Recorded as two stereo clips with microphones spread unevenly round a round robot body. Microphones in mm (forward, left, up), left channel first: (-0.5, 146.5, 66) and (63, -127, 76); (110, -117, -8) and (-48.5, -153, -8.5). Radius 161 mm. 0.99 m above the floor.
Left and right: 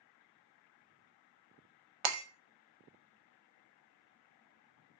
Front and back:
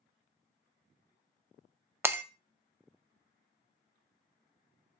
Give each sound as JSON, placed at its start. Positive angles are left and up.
{"t": 2.0, "sound": "breaking glass", "azimuth_deg": -85, "distance_m": 0.5}